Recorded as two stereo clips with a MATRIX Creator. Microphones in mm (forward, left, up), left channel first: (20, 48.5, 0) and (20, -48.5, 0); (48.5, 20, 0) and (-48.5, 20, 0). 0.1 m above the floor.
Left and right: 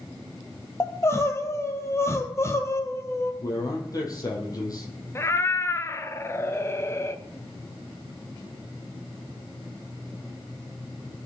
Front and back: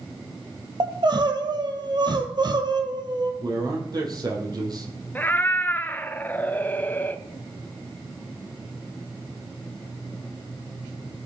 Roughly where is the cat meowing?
Ahead left.